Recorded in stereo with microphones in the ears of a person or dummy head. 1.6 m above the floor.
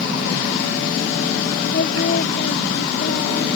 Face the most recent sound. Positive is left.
turn(degrees=40)  # may be behind; listen again after turning